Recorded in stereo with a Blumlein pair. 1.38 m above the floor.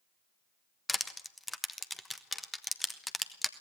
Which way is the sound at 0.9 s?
10° left.